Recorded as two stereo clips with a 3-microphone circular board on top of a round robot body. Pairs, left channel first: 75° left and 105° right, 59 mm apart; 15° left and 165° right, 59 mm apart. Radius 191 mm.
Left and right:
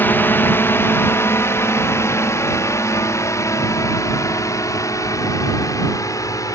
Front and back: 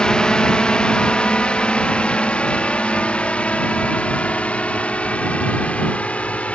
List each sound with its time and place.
0.0 s a drone: 80° left